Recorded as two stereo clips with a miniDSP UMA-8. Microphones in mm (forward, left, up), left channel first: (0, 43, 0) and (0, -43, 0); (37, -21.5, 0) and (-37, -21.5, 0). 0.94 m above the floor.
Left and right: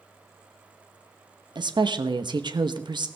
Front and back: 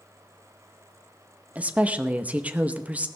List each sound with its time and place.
1.6 s a woman speaking: 110° right, 0.9 m